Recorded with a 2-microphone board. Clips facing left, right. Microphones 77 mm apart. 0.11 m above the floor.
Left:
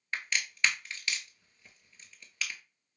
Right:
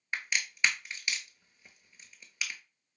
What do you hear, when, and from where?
0.1 s a crack: 15° right (ahead or behind), 0.6 m